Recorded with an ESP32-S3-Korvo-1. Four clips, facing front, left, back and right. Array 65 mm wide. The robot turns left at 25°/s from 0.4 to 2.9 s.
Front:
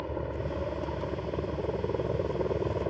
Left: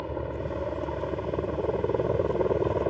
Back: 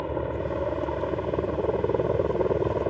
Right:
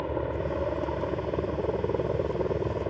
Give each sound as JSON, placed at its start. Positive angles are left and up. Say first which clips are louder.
{"t": 0.0, "sound": "a helicopter", "louder": "right 3 dB, back 5 dB", "azimuth_deg": -155}